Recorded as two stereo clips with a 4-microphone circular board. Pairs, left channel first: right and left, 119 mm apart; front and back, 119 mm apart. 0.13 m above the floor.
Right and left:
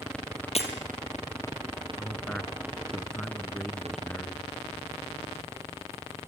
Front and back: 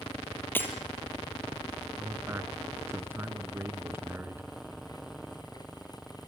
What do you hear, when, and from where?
0.6 s breaking glass: 70° right, 2.5 m
2.0 s a man speaking: 160° right, 1.2 m